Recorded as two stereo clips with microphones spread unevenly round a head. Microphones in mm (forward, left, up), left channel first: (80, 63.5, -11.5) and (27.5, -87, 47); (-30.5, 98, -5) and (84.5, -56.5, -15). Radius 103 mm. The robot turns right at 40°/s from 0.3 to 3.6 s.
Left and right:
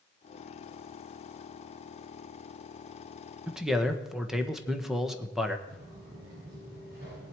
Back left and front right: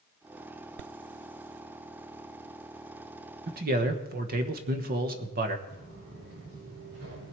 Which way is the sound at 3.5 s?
20° right.